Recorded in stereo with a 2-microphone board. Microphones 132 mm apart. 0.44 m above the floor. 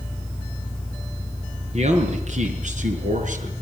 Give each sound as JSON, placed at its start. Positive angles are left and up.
{"t": 1.7, "sound": "a man speaking", "side_deg": -60, "distance_m": 6.5}